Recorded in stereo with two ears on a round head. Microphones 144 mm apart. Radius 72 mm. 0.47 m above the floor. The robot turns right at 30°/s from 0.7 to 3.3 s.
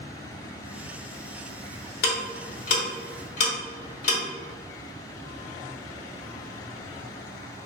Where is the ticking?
65° left (ahead or behind), 1.1 m; by 4.2 s 45° left (ahead or behind), 1.1 m.